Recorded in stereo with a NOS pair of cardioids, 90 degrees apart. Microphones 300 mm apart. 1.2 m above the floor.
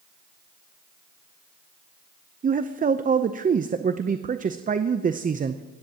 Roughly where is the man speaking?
Ahead right.